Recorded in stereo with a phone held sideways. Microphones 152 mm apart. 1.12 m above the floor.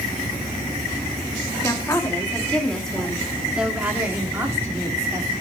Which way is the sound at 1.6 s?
20° left (ahead or behind).